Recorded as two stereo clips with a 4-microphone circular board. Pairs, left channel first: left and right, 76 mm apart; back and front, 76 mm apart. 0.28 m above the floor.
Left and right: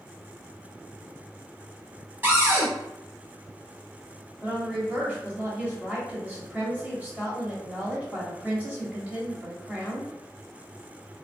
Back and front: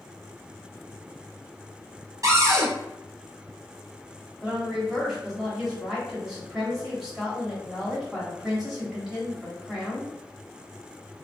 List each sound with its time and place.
2.2 s a cupboard door: 30° right, 1.0 m
4.4 s a woman speaking: 75° right, 1.0 m